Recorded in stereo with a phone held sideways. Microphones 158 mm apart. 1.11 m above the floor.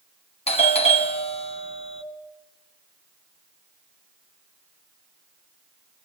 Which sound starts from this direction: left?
A doorbell, at 0.5 s.